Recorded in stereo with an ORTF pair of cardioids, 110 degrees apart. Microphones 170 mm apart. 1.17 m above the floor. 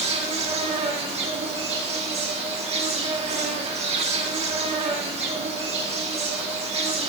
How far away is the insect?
About 1.9 m.